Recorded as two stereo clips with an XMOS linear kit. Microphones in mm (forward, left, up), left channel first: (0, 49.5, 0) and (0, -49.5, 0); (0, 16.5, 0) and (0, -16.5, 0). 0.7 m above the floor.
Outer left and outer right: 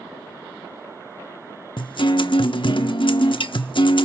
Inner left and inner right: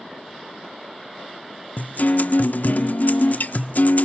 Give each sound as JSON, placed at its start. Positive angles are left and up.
{"t": 1.8, "sound": "a guitar", "side_deg": 55, "distance_m": 1.4}